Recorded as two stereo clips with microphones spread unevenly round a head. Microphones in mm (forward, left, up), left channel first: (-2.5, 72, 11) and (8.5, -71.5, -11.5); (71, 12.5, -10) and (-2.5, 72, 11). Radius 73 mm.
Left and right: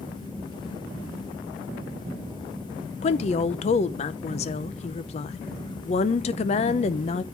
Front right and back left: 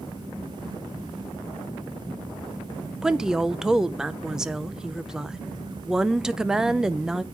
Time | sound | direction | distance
3.0 | a woman speaking | 50° left | 0.6 m